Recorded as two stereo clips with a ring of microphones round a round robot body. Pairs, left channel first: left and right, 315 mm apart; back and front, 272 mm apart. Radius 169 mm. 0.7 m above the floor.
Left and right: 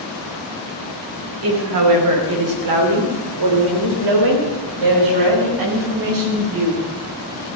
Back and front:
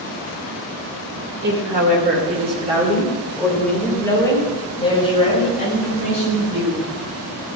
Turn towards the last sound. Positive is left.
turn(degrees=-120)